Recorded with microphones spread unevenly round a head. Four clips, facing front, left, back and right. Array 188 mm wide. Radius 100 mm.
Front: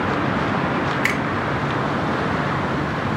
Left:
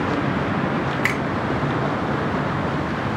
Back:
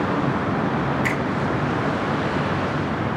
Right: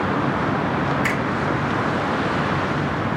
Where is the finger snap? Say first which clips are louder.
Right 1 dB, front 1 dB; 40° left, 2.5 m.